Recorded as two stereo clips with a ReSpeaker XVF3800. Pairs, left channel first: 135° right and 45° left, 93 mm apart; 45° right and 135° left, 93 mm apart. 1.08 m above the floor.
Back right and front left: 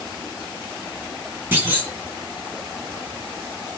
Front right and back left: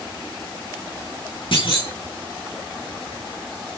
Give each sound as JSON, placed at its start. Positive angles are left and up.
{"t": 1.5, "sound": "a clunk", "azimuth_deg": -20, "distance_m": 5.0}